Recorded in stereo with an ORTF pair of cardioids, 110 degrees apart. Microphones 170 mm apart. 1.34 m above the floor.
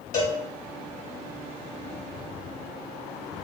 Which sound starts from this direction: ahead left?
A cowbell, at 0.1 s.